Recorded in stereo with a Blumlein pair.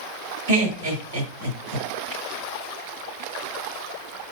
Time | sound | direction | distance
0.5 | laughter | 65° right | 1.7 m